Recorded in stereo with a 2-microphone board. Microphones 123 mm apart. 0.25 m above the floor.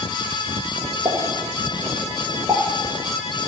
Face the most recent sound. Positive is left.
turn(degrees=-30)  # may be behind; listen again after turning